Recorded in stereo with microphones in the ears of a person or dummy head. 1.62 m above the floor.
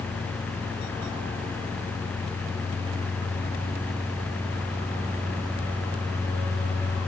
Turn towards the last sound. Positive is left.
No sound to turn to.